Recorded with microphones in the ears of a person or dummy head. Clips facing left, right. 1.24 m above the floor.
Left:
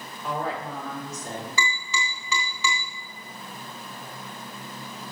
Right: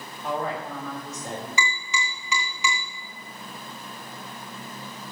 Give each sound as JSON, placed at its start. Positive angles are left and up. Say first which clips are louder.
{"t": 0.2, "sound": "a woman speaking", "louder": "right 1 dB", "side_deg": -30, "distance_m": 4.5}
{"t": 1.6, "sound": "tapping", "louder": "even", "side_deg": -15, "distance_m": 3.0}